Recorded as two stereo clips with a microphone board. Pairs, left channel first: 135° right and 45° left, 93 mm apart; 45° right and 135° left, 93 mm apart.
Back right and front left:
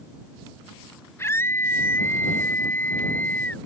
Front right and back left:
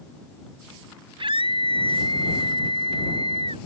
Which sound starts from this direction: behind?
A scream, at 1.2 s.